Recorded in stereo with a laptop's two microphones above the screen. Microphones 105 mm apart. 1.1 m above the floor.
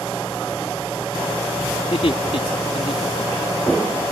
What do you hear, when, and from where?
1.8 s laughter: 65° left (ahead or behind)